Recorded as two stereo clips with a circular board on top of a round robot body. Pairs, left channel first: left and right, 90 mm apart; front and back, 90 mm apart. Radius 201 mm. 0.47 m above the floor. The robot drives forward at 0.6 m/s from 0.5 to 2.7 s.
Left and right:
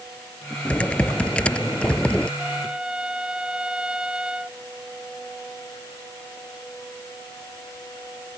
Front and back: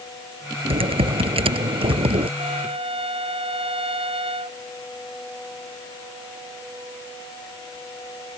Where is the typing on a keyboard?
170° left.